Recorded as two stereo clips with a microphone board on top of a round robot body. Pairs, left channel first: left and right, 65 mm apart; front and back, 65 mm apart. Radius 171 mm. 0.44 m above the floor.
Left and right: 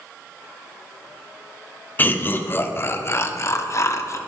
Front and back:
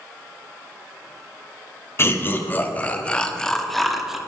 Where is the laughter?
40° left, 1.8 m; by 4.2 s 100° left, 1.8 m.